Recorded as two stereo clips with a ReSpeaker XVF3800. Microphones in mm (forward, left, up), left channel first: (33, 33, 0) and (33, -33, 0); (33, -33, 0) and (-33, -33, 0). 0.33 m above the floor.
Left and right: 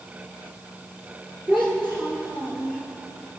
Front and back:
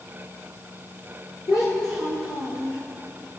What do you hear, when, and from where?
1.5 s a child speaking: 30° right, 6.5 m; by 2.8 s 20° right, 7 m